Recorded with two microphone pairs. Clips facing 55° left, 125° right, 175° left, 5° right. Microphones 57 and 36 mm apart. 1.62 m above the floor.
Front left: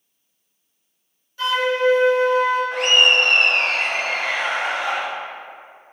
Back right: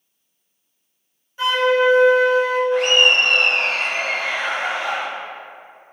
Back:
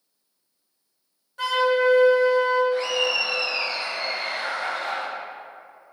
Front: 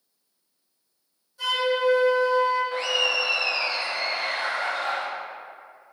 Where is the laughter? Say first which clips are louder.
Back right 2 dB, back 1 dB; 35° left, 0.7 m.